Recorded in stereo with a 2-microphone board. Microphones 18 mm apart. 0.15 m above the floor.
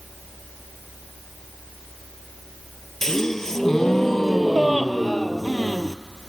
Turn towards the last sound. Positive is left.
turn(degrees=25)  # may be behind; listen again after turning